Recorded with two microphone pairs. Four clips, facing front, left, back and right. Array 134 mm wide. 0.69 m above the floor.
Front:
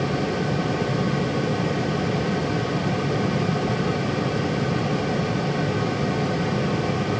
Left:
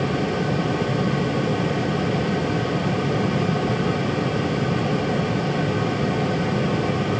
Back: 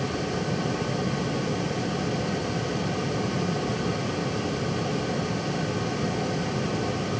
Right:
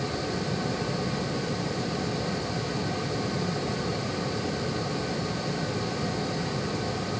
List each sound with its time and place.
Only background noise.